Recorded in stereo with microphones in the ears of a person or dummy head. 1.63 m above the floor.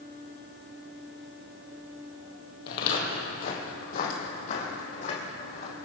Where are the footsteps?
50° left (ahead or behind), 2.5 m; by 5.8 s 40° left (ahead or behind), 4 m.